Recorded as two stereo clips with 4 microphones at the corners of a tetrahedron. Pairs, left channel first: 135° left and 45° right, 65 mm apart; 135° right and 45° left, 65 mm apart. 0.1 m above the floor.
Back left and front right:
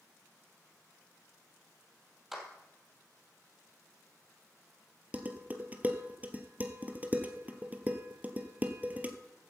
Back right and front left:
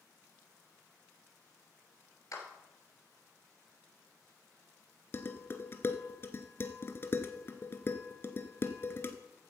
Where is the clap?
130° right, 2.5 m.